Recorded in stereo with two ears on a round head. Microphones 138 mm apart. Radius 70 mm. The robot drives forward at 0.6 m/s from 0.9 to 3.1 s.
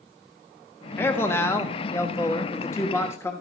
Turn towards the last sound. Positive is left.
turn(degrees=15)  # may be behind; listen again after turning